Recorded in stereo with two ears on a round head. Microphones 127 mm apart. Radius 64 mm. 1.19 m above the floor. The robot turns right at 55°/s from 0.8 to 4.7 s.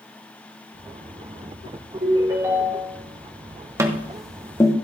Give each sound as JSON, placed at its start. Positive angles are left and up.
{"t": 2.0, "sound": "a ringtone", "azimuth_deg": -45, "distance_m": 4.5}
{"t": 3.8, "sound": "tapping", "side_deg": -20, "distance_m": 1.0}